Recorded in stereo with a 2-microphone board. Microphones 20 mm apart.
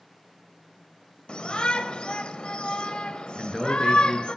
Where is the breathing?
I don't hear breathing.